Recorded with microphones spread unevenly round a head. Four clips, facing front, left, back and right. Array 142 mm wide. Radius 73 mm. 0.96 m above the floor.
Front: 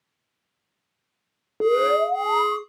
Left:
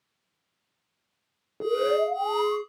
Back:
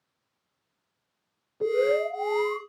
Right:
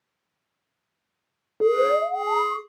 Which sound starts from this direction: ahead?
An alarm, at 1.6 s.